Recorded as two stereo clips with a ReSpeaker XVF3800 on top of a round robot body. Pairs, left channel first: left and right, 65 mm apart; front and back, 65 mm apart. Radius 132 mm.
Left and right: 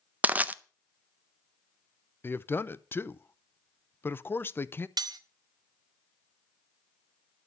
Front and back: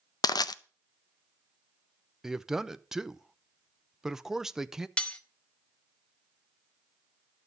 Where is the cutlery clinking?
75° right, 0.7 m.